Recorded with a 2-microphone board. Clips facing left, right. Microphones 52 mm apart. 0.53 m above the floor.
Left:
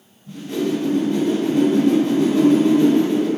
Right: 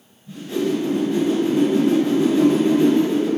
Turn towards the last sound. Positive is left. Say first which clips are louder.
# even
turn(degrees=60)  # may be behind; listen again after turning